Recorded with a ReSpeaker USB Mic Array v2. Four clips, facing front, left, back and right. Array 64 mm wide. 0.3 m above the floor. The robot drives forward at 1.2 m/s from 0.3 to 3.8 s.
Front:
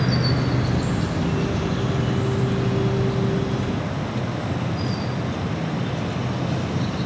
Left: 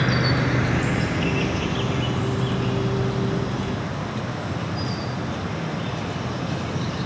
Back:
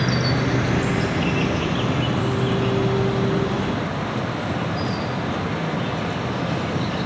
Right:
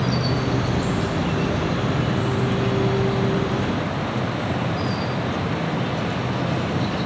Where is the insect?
105° left, 1.6 m; by 7.1 s 160° left, 5 m.